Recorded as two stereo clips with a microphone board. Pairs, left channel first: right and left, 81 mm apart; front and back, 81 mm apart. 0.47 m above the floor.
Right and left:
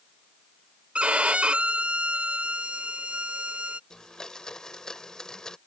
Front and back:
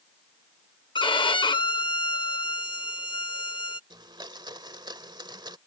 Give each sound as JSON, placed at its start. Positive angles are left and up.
{"t": 0.9, "sound": "a violin", "azimuth_deg": 15}
{"t": 3.9, "sound": "a blender", "azimuth_deg": -170}